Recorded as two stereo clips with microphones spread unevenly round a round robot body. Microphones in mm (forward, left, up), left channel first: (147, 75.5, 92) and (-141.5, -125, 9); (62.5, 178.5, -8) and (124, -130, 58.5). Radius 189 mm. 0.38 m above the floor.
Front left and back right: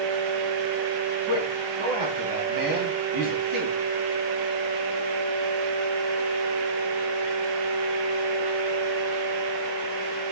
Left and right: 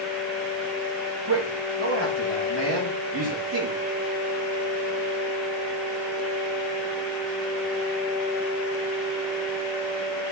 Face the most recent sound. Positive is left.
turn(degrees=-140)